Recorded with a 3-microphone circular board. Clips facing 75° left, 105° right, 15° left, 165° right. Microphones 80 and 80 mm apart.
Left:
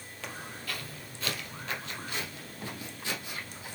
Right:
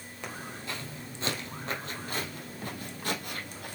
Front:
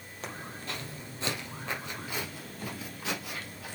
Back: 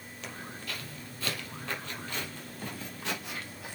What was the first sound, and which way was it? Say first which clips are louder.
Footsteps: right 1 dB, front 2 dB; 35° right.